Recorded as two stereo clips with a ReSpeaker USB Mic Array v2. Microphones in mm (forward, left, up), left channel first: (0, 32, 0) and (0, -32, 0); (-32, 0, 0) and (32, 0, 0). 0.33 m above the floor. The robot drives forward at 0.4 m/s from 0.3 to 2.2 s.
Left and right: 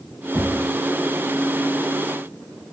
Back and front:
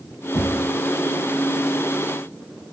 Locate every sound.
0.3 s knocking: 160° right, 4 m